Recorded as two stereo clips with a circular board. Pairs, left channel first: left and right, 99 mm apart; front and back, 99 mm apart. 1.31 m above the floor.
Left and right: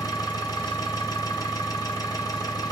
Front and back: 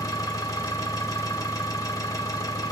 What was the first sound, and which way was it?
An engine running, 50° left.